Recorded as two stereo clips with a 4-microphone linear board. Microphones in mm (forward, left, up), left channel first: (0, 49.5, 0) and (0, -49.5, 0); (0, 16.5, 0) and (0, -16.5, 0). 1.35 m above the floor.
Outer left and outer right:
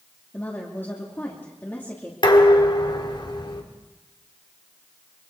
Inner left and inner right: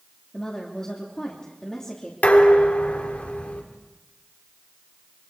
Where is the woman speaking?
20° left (ahead or behind), 2.5 m.